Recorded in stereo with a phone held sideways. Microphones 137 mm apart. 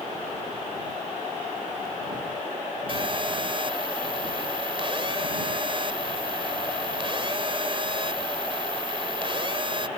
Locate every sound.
2.9 s a phone buzzing: 40° right (ahead or behind)